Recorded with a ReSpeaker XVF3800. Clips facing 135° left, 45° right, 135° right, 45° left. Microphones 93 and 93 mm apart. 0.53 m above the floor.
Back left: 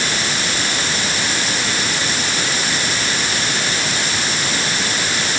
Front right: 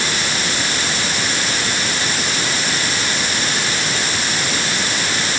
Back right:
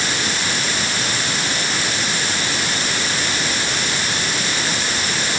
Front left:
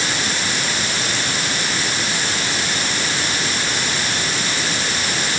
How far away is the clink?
No clink in this recording.